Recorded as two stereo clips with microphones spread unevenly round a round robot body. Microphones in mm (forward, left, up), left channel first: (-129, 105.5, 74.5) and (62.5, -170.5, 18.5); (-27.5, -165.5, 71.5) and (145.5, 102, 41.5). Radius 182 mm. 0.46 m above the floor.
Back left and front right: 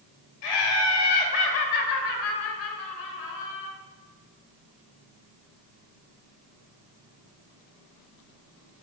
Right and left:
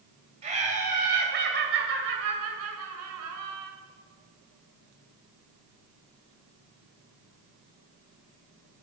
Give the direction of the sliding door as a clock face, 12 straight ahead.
I don't hear a sliding door.